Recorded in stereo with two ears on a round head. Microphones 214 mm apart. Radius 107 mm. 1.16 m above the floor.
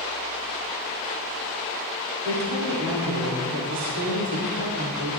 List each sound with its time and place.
2.2 s a woman speaking: 80° right, 3 m